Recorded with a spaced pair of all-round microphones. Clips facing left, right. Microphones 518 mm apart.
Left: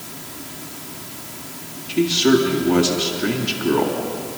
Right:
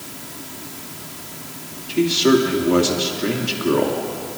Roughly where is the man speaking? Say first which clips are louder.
Even; centre.